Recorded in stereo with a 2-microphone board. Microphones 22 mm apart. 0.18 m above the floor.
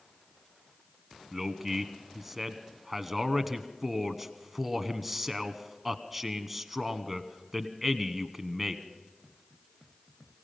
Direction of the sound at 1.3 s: 10° right (ahead or behind).